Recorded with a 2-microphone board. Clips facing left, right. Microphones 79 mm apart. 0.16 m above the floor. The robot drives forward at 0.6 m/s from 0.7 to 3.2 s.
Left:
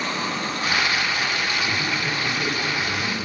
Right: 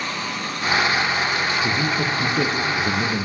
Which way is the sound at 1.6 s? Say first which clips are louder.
Right 3 dB; 65° right (ahead or behind).